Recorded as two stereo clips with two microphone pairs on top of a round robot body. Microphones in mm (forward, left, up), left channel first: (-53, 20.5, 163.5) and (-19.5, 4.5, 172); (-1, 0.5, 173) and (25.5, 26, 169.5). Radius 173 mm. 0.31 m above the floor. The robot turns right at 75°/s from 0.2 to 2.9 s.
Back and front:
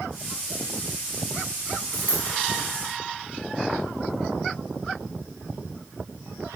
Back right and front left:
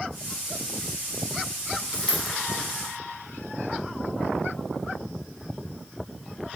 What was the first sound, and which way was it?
A dropped coin, 65° right.